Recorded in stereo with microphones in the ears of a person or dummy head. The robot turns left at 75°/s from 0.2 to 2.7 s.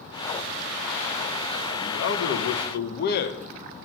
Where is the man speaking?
145° left, 1.2 m; by 3.4 s 75° left, 1.2 m.